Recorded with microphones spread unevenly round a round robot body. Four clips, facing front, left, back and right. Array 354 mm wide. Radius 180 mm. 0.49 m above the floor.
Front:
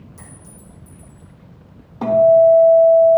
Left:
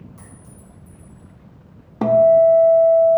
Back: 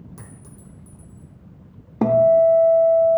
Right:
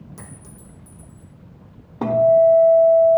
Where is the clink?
130° right, 1.1 m.